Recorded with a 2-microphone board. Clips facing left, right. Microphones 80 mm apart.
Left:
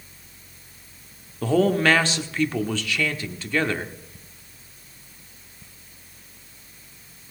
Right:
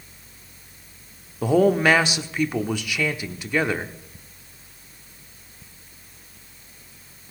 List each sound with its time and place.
1.4 s a man speaking: 15° right (ahead or behind), 0.7 m